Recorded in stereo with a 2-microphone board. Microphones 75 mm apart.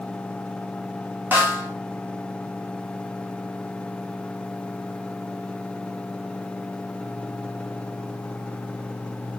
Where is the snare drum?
25° right (ahead or behind), 2.5 m.